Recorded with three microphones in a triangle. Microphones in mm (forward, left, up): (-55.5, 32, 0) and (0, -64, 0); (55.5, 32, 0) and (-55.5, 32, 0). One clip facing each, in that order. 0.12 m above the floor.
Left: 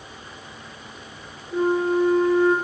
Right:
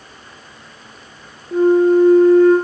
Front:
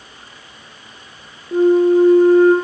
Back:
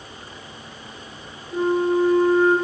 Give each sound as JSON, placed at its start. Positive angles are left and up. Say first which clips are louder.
{"t": 1.5, "sound": "a flute", "louder": "right 9 dB, front 8 dB", "azimuth_deg": -25, "distance_m": 2.5}